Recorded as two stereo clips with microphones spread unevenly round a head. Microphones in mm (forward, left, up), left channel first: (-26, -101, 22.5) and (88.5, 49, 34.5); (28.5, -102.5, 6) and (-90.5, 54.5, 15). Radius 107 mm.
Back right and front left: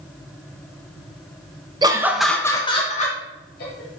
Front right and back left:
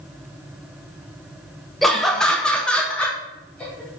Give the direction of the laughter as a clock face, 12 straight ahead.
11 o'clock.